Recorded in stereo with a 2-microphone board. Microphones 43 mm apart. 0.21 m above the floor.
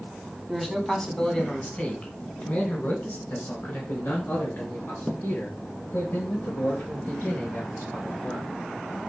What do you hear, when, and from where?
0.5 s a man speaking: centre (ahead or behind), 1.6 m; by 8.5 s 75° left (ahead or behind), 6 m